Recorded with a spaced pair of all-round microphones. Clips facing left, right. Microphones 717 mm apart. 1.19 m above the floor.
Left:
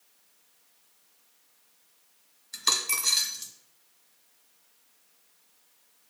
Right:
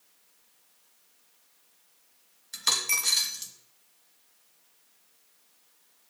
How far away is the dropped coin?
About 1.2 m.